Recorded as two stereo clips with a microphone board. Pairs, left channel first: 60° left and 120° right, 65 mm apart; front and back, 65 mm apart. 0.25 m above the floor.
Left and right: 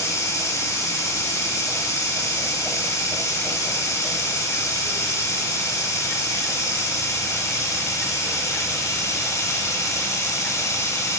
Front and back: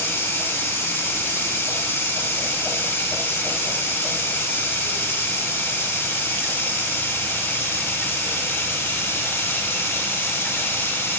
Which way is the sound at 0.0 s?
45° left.